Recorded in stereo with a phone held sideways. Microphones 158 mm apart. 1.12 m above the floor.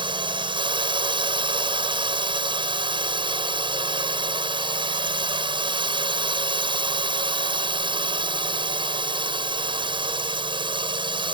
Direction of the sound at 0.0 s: 30° right (ahead or behind).